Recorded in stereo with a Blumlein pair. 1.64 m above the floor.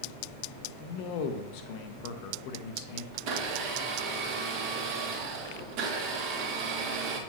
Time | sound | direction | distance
0.8 | a man speaking | 45° left | 1.0 m
3.1 | a blender | 45° right | 1.7 m